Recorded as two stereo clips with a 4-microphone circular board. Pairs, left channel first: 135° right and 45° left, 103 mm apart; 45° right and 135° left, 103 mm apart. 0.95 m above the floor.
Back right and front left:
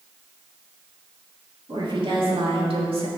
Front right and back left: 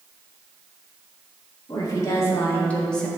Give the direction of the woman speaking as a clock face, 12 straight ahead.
12 o'clock.